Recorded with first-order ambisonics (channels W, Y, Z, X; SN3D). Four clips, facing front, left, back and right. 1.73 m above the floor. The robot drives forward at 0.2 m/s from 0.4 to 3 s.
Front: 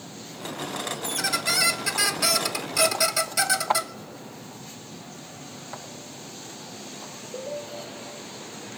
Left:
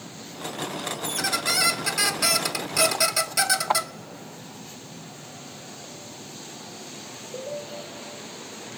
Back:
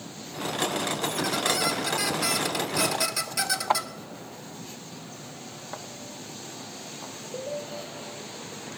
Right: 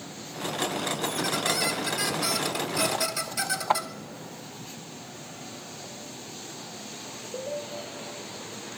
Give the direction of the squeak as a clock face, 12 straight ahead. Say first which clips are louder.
Left 3 dB, front 2 dB; 10 o'clock.